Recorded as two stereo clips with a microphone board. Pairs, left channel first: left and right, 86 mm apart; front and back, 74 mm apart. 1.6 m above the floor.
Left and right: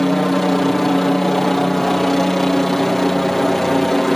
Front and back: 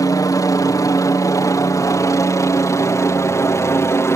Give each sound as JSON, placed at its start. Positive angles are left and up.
{"t": 0.0, "sound": "a helicopter", "azimuth_deg": 5}